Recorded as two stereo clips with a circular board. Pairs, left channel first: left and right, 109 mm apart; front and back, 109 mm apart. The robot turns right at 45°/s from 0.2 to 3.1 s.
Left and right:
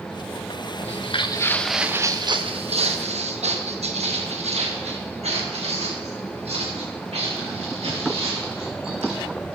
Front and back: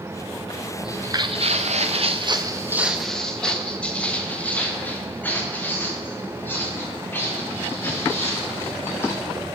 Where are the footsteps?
95° left, 0.6 m; by 9.2 s 70° right, 5.5 m.